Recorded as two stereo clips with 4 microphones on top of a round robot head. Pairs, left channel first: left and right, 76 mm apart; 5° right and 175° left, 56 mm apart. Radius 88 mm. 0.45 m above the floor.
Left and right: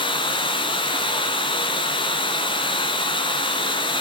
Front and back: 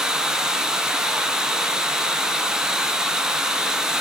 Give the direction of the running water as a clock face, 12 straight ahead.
9 o'clock.